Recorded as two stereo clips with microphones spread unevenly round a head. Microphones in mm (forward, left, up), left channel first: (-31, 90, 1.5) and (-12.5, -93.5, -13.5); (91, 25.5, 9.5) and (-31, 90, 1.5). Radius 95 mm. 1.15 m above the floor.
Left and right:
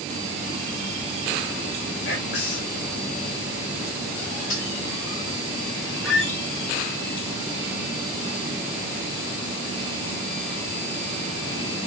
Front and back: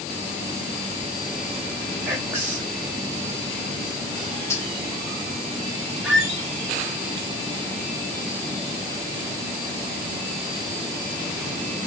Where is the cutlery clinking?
40° left, 2.5 m.